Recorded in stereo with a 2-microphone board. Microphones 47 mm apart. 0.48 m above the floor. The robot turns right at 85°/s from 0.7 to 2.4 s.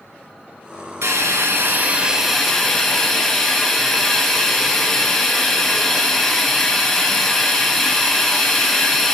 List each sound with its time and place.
1.0 s a hiss: 110° right, 1.3 m; by 9.2 s 10° left, 1.3 m